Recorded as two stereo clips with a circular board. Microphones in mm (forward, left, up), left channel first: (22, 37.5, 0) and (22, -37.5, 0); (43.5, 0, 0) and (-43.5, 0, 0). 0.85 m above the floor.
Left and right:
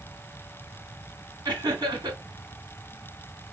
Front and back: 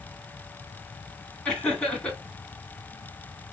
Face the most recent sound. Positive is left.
turn(degrees=-75)